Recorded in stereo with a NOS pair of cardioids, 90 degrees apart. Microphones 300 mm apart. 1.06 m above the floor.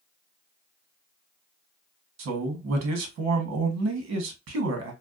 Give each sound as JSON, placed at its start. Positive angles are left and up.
{"t": 2.2, "sound": "a man speaking", "azimuth_deg": -60, "distance_m": 1.2}